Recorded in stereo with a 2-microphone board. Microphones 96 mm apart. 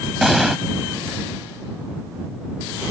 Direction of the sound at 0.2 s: 5° right (ahead or behind).